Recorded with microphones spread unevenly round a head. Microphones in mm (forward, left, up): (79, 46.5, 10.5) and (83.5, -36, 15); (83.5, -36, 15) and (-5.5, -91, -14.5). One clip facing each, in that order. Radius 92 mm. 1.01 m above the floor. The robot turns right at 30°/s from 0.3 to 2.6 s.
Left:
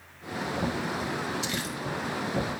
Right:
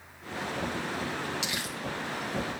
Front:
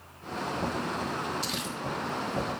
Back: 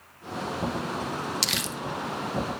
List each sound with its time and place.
1.4 s crumpling: 150° right, 0.6 m; by 1.8 s 140° right, 0.6 m